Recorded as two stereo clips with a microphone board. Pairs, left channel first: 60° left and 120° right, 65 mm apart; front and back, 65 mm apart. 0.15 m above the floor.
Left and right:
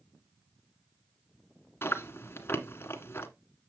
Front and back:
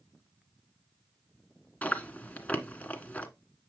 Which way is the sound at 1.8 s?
55° left.